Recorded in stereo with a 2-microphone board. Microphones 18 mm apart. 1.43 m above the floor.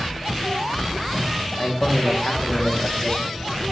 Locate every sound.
1.6 s a man speaking: 45° left (ahead or behind), 1.0 m